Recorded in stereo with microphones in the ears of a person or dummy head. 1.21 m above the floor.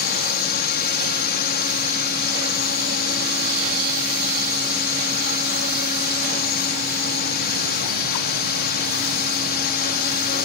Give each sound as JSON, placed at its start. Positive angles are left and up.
{"t": 0.0, "sound": "a drone", "side_deg": 50}